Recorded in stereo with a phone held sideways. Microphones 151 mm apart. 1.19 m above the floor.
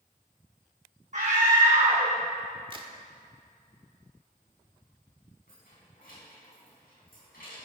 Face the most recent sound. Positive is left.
turn(degrees=75)  # may be behind; listen again after turning